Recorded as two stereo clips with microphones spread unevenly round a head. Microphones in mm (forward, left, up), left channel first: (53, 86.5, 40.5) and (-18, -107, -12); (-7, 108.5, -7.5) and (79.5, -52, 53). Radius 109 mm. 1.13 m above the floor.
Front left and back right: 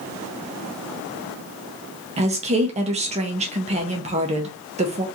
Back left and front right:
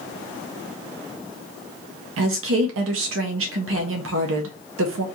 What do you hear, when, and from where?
2.2 s a woman speaking: 75° right, 0.5 m